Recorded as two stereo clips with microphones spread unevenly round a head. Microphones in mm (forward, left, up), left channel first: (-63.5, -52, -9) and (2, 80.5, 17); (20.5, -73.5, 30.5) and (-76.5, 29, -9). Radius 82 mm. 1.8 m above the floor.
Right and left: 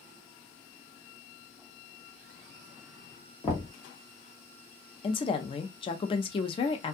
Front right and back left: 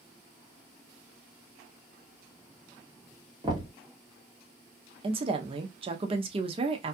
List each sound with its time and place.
3.4 s knocking: 170° right, 1.1 m
5.0 s a woman speaking: 170° right, 0.7 m